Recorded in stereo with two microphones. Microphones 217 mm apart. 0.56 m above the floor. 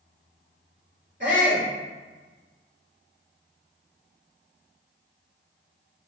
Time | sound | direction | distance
1.2 | a shout | 55° right (ahead or behind) | 2.5 m